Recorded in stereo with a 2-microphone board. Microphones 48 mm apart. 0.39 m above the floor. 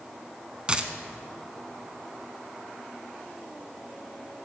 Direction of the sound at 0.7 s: 20° right (ahead or behind).